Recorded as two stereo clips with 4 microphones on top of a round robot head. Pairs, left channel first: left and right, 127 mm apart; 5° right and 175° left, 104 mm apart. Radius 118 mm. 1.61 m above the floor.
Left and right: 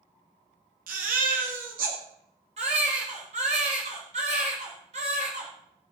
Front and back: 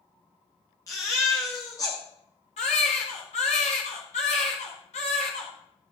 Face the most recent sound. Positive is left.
turn(degrees=-40)